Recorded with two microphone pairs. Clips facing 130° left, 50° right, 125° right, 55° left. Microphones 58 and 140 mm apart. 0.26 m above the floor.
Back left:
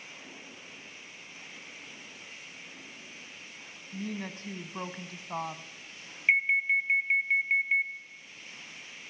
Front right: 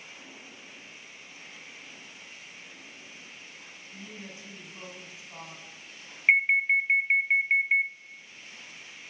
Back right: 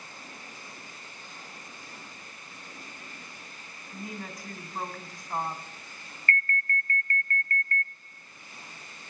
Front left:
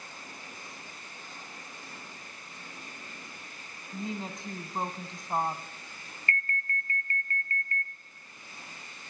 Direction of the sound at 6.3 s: Straight ahead.